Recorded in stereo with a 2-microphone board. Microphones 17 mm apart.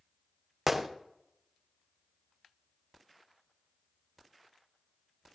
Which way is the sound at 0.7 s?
10° right (ahead or behind).